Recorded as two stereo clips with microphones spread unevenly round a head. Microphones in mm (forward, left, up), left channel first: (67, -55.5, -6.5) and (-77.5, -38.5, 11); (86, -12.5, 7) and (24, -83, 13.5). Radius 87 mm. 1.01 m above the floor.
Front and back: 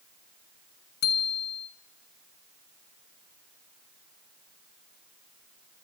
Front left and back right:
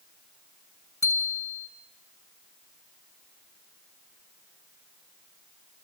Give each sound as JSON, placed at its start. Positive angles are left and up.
{"t": 1.0, "sound": "a bicycle bell", "azimuth_deg": -10, "distance_m": 7.5}